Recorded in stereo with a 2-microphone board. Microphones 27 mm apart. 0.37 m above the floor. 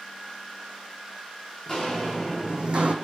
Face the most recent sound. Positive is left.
turn(degrees=-60)  # may be behind; listen again after turning